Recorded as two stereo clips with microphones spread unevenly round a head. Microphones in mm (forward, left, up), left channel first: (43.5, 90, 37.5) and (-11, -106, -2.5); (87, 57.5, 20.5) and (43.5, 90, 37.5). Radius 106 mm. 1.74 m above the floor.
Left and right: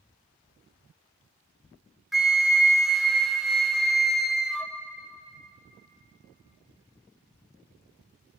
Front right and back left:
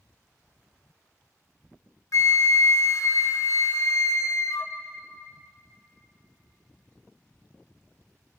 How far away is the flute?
About 0.8 m.